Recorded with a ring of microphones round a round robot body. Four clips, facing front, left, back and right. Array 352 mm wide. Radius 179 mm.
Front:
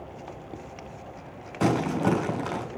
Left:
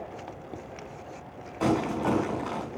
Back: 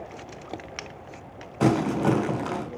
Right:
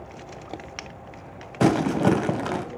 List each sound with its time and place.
1.6 s crumpling: 90° right, 4 m